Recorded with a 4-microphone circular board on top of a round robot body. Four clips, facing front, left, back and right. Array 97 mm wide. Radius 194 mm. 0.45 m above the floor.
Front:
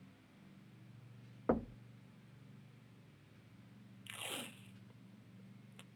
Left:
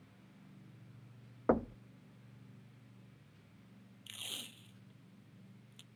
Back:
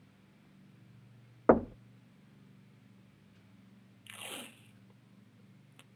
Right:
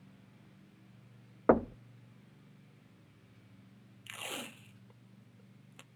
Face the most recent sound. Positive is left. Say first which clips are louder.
# right 10 dB, back 1 dB
turn(degrees=-90)